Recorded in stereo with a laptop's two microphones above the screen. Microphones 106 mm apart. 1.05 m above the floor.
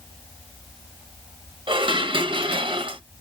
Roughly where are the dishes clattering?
Right.